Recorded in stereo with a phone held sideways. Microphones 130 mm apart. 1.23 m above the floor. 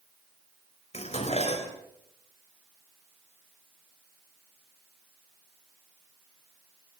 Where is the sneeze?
No sneeze in this recording.